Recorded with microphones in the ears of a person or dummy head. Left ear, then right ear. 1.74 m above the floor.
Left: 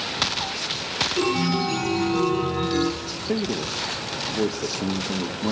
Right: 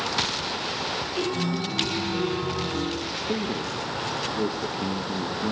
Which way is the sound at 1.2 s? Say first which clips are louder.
Left 5 dB; 30° left (ahead or behind).